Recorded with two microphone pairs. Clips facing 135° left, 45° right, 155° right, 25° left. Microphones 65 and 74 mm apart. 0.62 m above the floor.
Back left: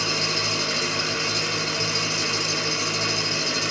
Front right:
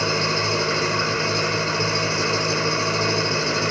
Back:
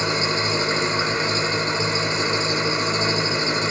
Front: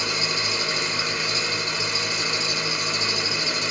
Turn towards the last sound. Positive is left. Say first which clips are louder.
# front right 5 dB, back 5 dB
turn(degrees=-100)